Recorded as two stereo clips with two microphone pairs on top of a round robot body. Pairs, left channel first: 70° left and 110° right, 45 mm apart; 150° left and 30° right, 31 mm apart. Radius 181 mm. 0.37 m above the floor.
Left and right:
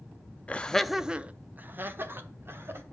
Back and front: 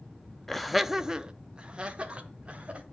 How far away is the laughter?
About 0.8 m.